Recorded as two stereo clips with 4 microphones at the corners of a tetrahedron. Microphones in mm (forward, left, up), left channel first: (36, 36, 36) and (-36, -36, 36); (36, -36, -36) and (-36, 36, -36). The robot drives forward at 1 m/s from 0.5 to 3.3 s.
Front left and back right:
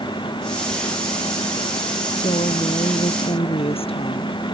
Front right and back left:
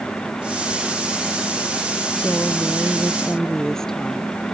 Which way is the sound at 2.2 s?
35° left.